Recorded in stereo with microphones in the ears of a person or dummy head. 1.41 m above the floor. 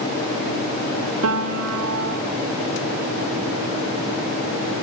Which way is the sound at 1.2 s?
85° right.